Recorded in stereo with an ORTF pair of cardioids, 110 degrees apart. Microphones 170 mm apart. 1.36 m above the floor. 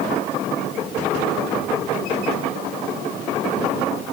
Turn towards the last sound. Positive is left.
No sound to turn to.